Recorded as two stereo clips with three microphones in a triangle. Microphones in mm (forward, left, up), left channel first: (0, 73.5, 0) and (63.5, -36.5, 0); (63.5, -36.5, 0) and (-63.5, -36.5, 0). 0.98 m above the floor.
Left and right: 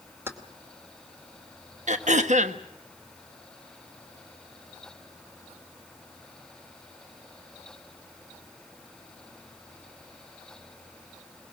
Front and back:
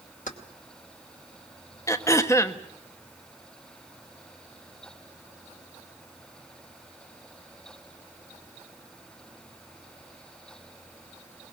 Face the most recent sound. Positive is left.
turn(degrees=-65)